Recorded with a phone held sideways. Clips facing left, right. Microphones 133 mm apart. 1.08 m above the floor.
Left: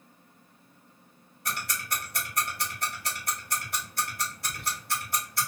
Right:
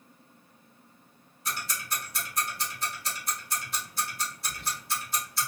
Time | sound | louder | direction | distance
1.4 | ticking | left 1 dB | 60° left (ahead or behind) | 1.0 m
4.4 | whispering | left 1 dB | 55° left (ahead or behind) | 0.7 m